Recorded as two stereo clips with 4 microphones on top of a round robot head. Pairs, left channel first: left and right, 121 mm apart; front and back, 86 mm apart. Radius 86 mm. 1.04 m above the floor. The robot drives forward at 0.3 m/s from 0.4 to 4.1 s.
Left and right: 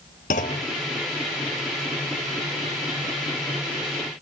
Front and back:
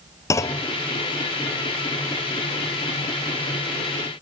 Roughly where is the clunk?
Ahead left.